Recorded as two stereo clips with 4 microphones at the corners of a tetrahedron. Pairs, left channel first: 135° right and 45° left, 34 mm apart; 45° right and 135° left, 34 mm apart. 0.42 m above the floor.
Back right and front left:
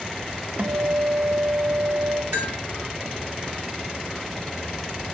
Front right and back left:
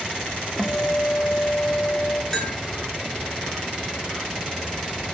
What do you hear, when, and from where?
0.6 s a guitar: 20° left, 1.8 m
2.3 s a bell: 40° left, 6.5 m